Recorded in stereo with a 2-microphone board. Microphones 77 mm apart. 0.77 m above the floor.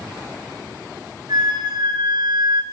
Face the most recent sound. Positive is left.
turn(degrees=-65)  # may be behind; listen again after turning